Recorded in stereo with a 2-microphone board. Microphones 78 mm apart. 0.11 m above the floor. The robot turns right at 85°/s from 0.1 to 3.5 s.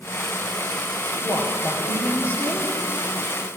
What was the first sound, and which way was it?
A woman speaking, 115° left.